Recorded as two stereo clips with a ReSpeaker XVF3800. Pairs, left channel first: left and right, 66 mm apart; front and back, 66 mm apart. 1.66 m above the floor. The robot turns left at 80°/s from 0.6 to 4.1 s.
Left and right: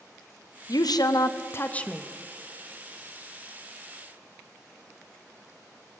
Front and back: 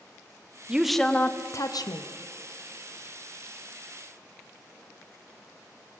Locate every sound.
0.7 s a woman speaking: 110° left, 0.9 m; by 2.1 s 5° right, 0.9 m